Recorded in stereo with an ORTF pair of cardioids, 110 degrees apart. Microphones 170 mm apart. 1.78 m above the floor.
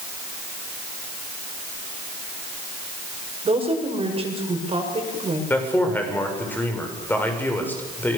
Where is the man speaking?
10° left, 7 m.